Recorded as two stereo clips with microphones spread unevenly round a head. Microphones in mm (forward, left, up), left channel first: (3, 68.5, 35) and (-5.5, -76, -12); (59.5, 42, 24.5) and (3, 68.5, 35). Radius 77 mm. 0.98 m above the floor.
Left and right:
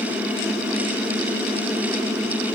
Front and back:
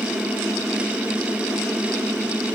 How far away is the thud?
I don't hear a thud.